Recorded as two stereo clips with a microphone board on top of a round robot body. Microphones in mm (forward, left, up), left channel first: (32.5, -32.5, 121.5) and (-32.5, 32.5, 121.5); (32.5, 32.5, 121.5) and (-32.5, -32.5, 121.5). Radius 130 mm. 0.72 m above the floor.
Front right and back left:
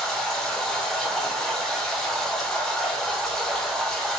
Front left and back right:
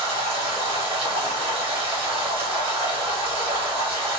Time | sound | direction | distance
0.0 | running water | 130° right | 1.4 m